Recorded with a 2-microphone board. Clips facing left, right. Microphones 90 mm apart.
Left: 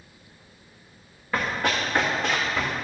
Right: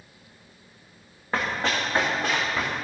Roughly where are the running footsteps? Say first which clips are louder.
Left 1 dB; right.